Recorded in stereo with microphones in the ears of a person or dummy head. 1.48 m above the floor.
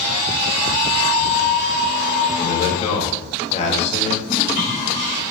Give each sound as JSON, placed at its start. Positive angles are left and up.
{"t": 2.4, "sound": "a man speaking", "side_deg": 40, "distance_m": 2.0}
{"t": 4.2, "sound": "a toilet flushing", "side_deg": 50, "distance_m": 5.0}